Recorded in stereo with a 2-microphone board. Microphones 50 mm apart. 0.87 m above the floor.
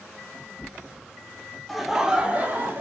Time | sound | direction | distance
1.7 | laughter | centre (ahead or behind) | 0.7 m